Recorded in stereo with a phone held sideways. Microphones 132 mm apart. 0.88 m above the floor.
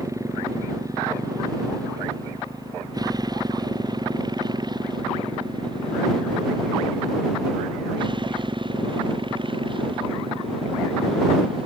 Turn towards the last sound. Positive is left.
turn(degrees=-40)  # may be behind; listen again after turning